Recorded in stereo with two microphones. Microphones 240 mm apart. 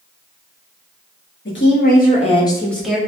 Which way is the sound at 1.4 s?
60° left (ahead or behind).